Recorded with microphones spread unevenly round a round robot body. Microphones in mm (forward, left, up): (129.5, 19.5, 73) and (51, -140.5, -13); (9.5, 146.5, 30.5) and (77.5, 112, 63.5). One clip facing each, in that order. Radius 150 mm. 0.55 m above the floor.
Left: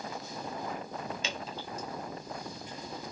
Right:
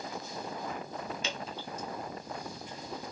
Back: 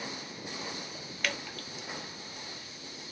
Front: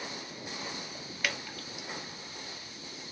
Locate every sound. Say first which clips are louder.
1.2 s dripping: even, even; 65° left, 1.0 m